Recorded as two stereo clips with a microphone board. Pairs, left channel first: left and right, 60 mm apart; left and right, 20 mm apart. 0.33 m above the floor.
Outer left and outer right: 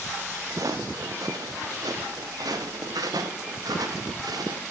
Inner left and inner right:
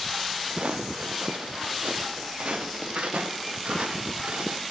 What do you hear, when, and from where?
0.5 s footsteps: 55° right (ahead or behind), 2 m; by 4.6 s 85° right, 5 m